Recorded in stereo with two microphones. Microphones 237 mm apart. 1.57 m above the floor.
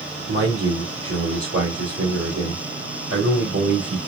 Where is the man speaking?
70° right (ahead or behind), 3 m.